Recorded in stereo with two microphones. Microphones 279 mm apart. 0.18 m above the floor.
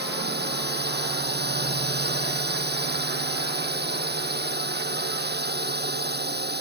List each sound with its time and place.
0.0 s a drone: 35° right (ahead or behind)